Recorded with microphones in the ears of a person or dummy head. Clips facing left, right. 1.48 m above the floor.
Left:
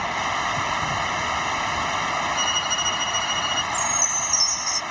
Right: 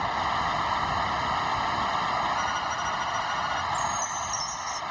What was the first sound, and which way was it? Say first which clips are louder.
Running water: left 1 dB; 35° left (ahead or behind).